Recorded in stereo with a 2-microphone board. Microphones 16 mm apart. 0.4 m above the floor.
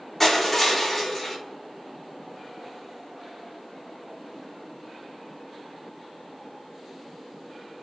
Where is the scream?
I don't hear a scream.